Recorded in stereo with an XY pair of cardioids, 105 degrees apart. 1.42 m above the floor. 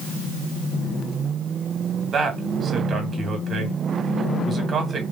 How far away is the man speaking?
About 2 m.